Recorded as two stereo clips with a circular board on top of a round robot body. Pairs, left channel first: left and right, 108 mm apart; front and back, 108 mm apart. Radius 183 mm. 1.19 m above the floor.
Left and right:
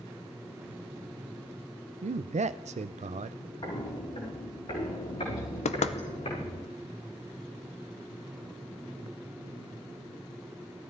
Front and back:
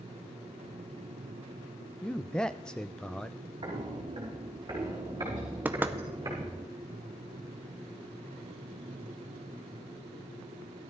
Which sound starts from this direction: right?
A man speaking, at 2.0 s.